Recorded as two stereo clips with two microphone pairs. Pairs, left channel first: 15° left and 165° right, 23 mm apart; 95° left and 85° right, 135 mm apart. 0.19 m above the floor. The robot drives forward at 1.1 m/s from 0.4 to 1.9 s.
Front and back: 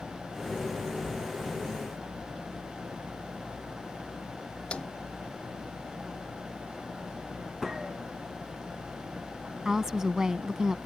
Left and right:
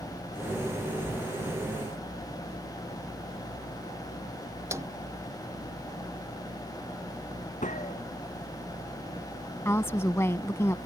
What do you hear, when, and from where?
4.7 s a snare drum: 20° right
7.6 s a gunshot: 120° left
9.7 s a woman speaking: 155° left